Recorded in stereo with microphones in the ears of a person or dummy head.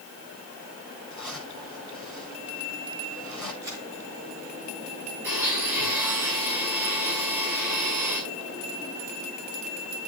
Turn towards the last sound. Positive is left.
turn(degrees=-5)  # may be behind; listen again after turning